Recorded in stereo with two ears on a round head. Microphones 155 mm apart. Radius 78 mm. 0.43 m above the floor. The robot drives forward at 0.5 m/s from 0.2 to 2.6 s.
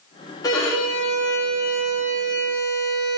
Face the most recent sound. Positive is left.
turn(degrees=20)  # may be behind; listen again after turning